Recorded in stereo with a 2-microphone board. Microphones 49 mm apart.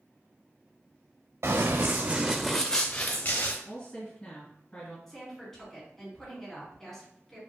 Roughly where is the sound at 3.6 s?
Left.